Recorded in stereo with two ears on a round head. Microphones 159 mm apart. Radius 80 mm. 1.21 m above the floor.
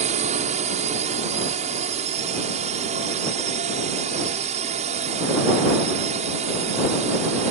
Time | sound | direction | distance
0.0 | a drone | 40° right (ahead or behind) | ?